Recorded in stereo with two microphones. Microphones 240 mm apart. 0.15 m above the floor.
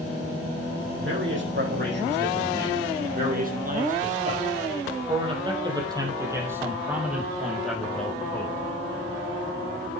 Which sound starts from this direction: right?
A man speaking, at 1.0 s.